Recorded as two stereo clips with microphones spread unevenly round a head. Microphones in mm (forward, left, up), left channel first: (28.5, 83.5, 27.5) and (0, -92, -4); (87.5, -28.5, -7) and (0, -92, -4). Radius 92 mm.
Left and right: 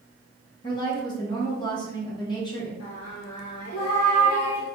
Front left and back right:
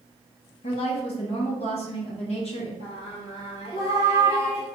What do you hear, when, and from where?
0.6 s a woman speaking: 20° left, 1.0 m
2.8 s singing: 65° left, 1.5 m